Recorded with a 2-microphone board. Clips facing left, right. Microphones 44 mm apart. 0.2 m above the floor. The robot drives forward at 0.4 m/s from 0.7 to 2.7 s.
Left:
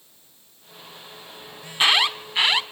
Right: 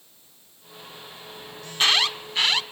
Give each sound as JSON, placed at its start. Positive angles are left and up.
{"t": 1.6, "sound": "an alarm", "side_deg": 20, "distance_m": 1.3}